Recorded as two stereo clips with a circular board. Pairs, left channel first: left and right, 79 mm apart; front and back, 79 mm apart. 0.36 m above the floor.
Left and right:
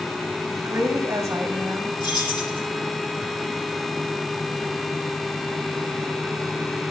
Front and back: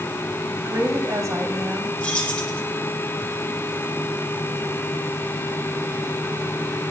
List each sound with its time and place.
0.6 s a woman speaking: 145° right, 3 m; by 1.9 s 125° right, 2.5 m
2.0 s keys jangling: 75° left, 9.5 m